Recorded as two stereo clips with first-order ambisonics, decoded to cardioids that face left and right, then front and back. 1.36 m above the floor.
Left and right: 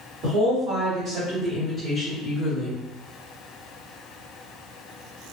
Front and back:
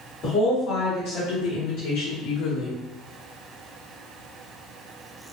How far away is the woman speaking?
About 1.7 m.